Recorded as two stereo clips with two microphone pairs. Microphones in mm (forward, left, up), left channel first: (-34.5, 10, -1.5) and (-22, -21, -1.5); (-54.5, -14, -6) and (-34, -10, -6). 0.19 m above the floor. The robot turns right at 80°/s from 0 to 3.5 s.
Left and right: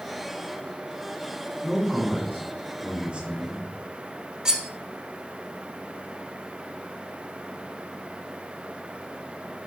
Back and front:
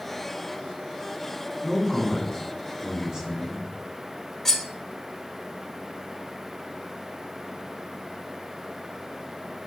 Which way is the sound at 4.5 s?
125° right.